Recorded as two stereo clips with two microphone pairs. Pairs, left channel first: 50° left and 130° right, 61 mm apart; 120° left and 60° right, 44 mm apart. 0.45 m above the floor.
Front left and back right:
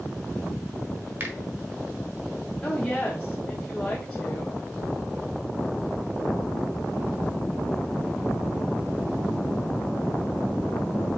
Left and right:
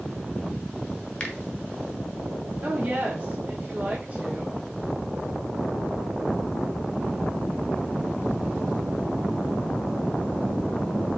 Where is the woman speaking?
15° right, 1.1 m.